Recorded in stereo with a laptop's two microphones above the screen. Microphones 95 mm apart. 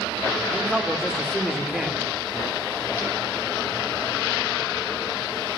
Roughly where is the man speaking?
Centre.